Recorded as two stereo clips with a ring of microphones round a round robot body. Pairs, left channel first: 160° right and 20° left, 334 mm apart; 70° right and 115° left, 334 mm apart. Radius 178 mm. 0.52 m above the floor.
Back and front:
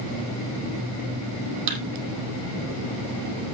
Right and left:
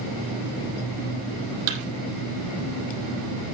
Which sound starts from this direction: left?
A thud, at 1.7 s.